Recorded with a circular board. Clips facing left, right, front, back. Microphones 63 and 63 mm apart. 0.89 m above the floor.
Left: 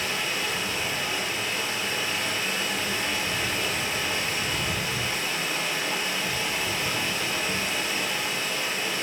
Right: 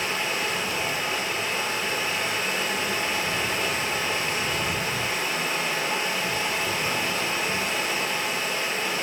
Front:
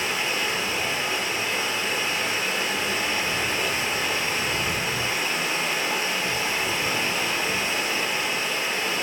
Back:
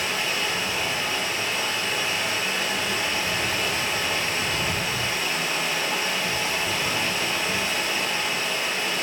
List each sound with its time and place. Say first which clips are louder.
0.0 s running water: right 2 dB, even; 55° right, 0.8 m